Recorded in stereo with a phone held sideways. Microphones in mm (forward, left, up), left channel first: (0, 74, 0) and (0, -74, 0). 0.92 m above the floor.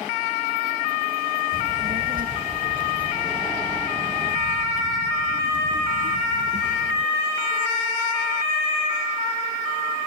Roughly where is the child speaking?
Right.